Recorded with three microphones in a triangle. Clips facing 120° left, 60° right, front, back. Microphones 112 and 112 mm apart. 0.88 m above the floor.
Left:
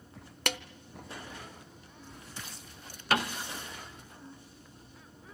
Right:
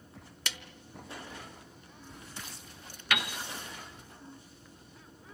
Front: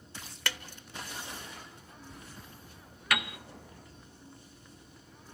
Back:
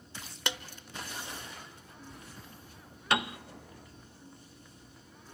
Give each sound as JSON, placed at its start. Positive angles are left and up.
{"t": 0.5, "sound": "a snare drum", "azimuth_deg": 115, "distance_m": 0.8}
{"t": 3.1, "sound": "a piano", "azimuth_deg": 140, "distance_m": 0.6}